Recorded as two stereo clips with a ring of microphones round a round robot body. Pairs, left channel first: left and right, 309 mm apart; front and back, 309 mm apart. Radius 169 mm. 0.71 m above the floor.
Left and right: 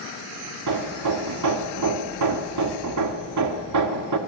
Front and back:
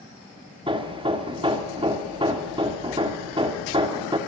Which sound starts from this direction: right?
Hammering, at 0.7 s.